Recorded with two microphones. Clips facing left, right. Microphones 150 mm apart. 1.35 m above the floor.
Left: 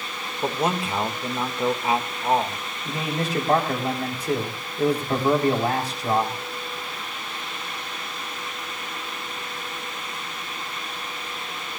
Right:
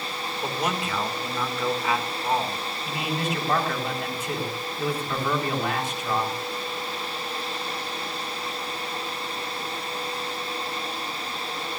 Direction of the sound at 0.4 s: 25° left (ahead or behind).